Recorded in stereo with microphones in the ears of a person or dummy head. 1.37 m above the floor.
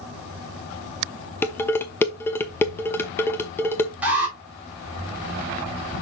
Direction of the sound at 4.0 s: 10° right (ahead or behind).